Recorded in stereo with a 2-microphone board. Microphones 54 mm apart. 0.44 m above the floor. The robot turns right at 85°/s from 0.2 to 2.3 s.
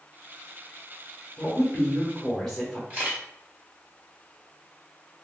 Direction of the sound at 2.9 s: 30° right (ahead or behind).